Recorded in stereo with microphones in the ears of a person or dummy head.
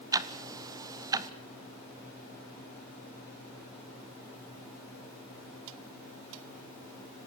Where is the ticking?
15° right (ahead or behind), 0.6 m.